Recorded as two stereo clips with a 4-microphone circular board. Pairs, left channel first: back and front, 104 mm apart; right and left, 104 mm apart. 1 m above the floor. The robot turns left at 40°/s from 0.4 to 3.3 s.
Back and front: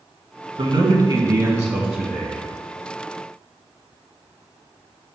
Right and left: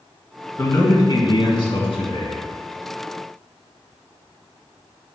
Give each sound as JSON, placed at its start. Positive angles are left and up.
{"t": 0.6, "sound": "a man speaking", "azimuth_deg": -20, "distance_m": 1.5}